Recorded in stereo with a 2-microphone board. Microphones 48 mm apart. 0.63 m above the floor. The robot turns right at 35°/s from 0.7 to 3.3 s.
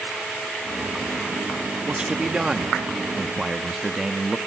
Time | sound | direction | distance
1.9 | a man speaking | 20° right (ahead or behind) | 0.7 m